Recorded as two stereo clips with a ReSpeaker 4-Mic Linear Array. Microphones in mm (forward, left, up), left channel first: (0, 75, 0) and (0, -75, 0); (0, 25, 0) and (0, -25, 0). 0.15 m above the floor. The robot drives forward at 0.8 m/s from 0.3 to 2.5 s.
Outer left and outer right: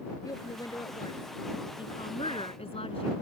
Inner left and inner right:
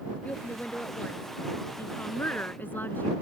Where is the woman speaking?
20° left (ahead or behind); by 3.1 s 40° left (ahead or behind).